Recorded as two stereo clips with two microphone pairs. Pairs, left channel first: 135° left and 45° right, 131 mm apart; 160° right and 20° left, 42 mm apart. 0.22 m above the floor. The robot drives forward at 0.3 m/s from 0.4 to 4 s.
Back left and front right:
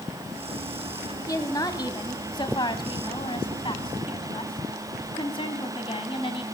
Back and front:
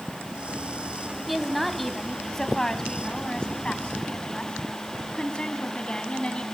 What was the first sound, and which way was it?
A woman speaking, 110° left.